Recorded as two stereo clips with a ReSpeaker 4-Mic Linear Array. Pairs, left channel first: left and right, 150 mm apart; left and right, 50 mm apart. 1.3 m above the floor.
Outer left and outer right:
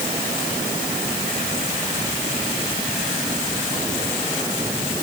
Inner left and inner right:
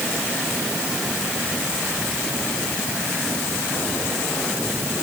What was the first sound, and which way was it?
Only background noise.